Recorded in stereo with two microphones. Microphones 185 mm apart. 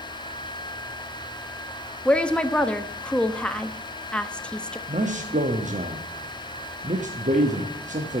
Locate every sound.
2.0 s a woman speaking: 5° left (ahead or behind), 0.6 m
4.9 s a man speaking: 40° right (ahead or behind), 0.8 m